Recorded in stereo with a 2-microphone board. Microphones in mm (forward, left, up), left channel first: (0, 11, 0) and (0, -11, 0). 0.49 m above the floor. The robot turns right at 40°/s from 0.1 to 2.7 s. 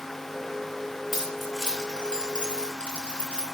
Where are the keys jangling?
5° right (ahead or behind), 5.5 m; by 3.4 s 60° left (ahead or behind), 5.5 m.